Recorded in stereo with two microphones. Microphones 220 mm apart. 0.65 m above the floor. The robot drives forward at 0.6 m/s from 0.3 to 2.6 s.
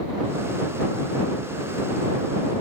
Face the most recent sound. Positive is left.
No sound to turn to.